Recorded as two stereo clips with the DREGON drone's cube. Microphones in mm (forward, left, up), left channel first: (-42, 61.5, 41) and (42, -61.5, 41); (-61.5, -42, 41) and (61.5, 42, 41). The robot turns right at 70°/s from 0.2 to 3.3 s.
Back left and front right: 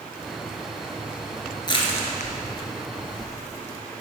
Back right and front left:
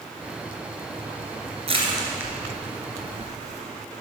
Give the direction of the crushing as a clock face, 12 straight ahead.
10 o'clock.